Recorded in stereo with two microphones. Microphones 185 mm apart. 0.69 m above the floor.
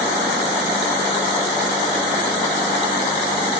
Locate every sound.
Only background noise.